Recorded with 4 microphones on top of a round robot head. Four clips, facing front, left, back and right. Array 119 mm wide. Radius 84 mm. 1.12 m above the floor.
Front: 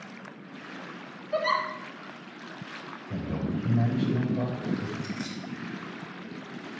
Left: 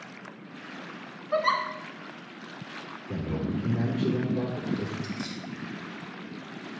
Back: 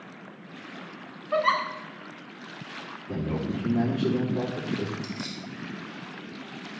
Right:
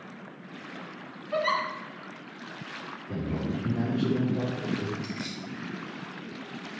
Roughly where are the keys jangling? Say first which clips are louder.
Left 1 dB, front 1 dB; right.